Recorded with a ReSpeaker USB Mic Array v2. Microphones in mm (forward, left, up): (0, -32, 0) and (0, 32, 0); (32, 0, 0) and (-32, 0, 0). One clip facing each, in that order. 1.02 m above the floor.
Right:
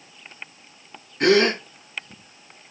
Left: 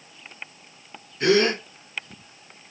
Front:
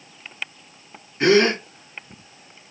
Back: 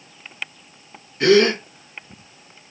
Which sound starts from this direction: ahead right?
A gasp, at 1.2 s.